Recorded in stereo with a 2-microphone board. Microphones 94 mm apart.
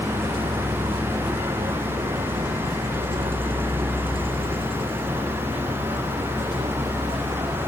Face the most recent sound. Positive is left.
turn(degrees=-85)